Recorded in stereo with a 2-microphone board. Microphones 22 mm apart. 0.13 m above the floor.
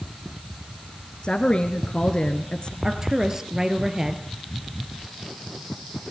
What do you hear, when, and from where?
1.2 s a woman speaking: 45° left (ahead or behind), 2 m
2.8 s a woman speaking: 25° right (ahead or behind), 2.5 m